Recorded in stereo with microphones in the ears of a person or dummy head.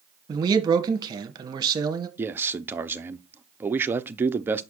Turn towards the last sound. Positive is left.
turn(degrees=-15)  # may be behind; listen again after turning